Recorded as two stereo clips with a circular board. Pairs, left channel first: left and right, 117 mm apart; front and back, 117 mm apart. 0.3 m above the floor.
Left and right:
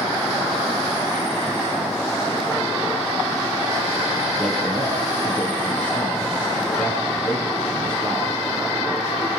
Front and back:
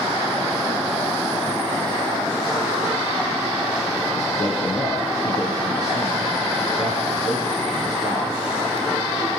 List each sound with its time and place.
4.4 s a man speaking: 15° left, 4.5 m